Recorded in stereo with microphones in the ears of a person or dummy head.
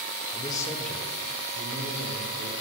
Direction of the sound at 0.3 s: 25° left (ahead or behind).